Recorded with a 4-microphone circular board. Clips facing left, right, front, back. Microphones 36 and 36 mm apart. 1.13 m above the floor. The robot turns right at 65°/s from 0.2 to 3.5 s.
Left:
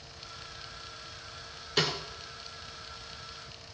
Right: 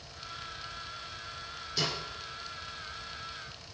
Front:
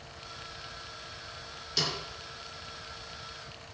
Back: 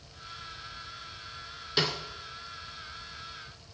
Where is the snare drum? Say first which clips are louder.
Left 4 dB, back 4 dB; 125° left, 2.5 m; by 2.0 s 135° left, 2.5 m.